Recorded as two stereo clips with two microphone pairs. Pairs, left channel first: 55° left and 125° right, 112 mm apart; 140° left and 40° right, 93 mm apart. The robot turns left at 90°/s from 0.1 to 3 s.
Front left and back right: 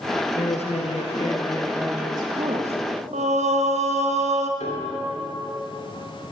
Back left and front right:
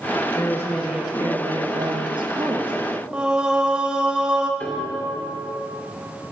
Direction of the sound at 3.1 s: 120° right.